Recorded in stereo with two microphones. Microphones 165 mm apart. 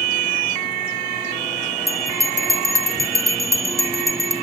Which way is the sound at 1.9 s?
20° right (ahead or behind).